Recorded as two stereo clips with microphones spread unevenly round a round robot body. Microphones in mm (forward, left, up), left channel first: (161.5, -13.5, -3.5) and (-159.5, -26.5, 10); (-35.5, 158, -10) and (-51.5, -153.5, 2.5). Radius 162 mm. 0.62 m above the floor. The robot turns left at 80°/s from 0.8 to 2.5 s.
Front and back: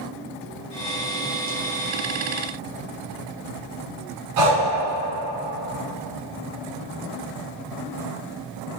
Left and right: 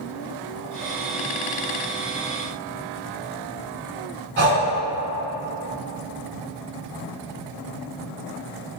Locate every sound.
4.4 s breathing: 145° right, 1.5 m